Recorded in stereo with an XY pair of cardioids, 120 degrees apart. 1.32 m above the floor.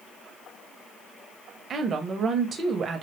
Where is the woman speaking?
45° right, 0.5 m.